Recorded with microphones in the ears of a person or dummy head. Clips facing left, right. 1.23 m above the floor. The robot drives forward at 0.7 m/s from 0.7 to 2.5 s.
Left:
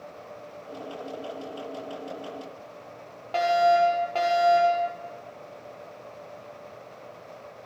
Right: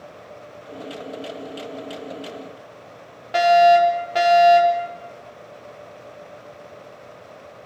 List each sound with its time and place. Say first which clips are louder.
3.3 s a fire alarm: right 7 dB; 20° right (ahead or behind), 7 m